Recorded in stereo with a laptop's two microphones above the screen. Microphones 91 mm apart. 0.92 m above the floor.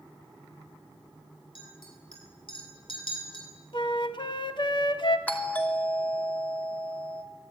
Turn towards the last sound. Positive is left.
turn(degrees=15)  # may be behind; listen again after turning